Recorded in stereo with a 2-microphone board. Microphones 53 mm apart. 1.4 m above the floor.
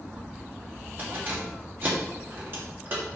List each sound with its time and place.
1.0 s keys jangling: 45° right (ahead or behind), 2 m